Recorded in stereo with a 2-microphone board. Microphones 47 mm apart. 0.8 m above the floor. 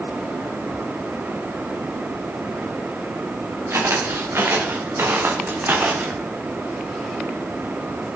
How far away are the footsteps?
About 3.5 m.